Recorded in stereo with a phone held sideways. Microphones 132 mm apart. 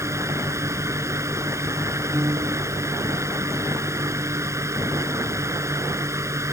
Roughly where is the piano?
Right.